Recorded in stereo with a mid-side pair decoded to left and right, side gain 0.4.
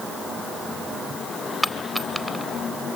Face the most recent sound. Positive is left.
turn(degrees=0)